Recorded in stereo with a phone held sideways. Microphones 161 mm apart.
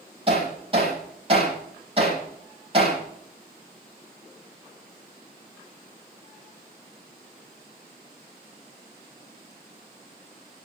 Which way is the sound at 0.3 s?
35° right (ahead or behind).